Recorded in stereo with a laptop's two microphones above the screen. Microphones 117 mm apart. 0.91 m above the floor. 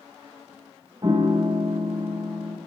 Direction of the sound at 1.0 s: 35° right (ahead or behind).